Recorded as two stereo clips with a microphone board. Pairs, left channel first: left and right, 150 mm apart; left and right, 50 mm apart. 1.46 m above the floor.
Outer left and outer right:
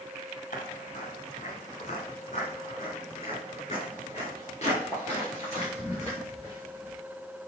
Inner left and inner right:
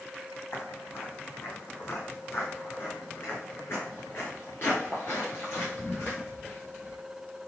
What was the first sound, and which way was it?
Footsteps, 55° left (ahead or behind).